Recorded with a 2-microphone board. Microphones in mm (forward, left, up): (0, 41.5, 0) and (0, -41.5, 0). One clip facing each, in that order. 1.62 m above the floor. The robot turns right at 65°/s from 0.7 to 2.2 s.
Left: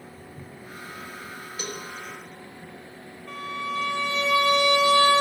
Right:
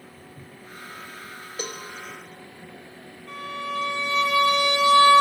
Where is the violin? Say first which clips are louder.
Even; 30° left (ahead or behind), 4.5 m.